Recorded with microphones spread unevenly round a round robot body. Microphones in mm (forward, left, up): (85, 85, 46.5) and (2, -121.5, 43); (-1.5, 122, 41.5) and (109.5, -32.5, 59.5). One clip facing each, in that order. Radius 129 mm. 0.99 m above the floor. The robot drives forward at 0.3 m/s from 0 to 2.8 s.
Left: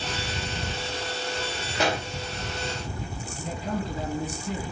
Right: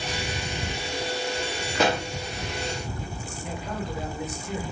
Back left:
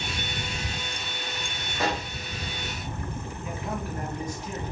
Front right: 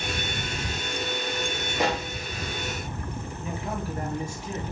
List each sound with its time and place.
1.8 s a pop: 130° right, 0.7 m; by 2.1 s 135° right, 0.7 m
3.4 s a man speaking: 35° left, 0.9 m